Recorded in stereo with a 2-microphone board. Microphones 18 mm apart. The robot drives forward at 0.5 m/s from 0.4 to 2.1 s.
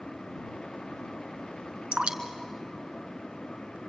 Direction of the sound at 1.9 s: 65° right (ahead or behind).